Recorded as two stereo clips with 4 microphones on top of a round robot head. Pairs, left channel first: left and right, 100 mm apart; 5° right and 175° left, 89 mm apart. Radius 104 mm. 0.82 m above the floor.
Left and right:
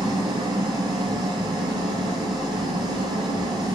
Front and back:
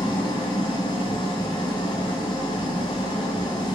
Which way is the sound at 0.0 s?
40° right.